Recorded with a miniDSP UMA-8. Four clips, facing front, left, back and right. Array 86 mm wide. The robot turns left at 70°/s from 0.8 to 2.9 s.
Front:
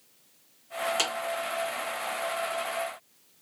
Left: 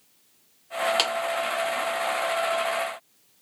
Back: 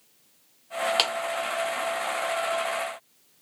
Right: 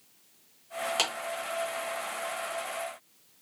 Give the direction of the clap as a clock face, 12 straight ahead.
7 o'clock.